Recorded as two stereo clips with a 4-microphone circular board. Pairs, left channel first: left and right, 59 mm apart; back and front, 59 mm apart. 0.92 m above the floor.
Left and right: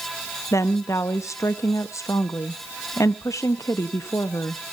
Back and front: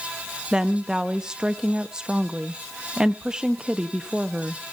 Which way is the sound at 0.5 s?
75° left.